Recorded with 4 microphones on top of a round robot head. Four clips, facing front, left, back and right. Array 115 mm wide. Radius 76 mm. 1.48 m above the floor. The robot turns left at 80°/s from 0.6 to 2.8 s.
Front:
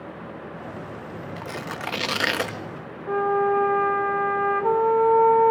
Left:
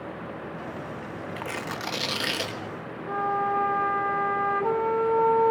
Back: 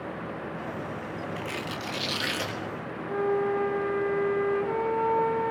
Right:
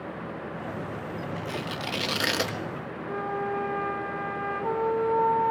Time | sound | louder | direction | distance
1.4 | tearing paper | even, front 1 dB | 60° left | 1.1 m
3.1 | a flute | left 5 dB, front 5 dB | 20° left | 2.5 m